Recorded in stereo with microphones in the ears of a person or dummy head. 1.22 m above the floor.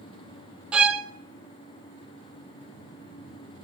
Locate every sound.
0.7 s a violin: 5° right (ahead or behind), 0.7 m